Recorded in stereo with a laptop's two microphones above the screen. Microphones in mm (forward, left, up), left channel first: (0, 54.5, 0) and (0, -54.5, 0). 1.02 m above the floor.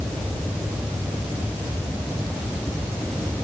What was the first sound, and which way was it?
Only background noise.